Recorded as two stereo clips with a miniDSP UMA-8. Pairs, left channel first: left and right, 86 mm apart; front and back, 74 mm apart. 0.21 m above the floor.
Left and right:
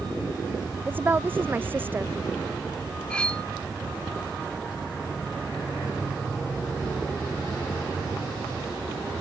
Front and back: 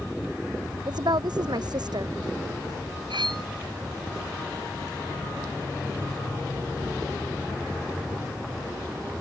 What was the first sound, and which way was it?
A woman speaking, 155° right.